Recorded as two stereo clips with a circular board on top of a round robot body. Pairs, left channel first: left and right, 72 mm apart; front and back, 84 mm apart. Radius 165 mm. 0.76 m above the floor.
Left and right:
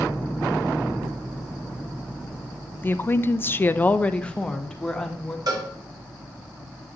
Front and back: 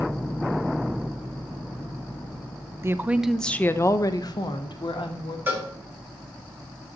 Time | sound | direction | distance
2.8 | a woman speaking | 140° left | 0.8 m
5.5 | a cowbell | 115° right | 1.9 m